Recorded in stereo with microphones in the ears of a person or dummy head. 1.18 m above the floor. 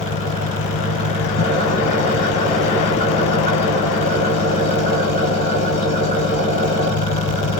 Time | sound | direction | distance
0.0 | an engine running | 30° left (ahead or behind) | 1.0 m